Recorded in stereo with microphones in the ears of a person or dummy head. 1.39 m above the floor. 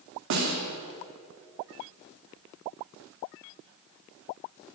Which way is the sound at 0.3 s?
70° right (ahead or behind).